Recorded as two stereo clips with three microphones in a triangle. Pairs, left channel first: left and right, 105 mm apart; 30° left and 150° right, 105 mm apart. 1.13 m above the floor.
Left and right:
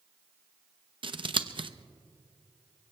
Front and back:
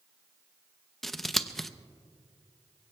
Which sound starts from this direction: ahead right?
Scissors, at 1.0 s.